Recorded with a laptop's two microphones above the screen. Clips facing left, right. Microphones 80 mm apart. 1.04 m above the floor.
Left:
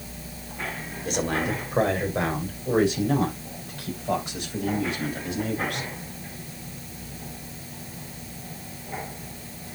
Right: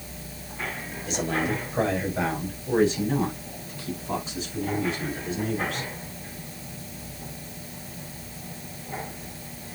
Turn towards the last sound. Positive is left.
turn(degrees=70)  # may be behind; listen again after turning